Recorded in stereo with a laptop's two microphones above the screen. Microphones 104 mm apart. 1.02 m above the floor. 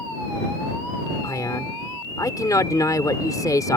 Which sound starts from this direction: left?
A man speaking, at 1.2 s.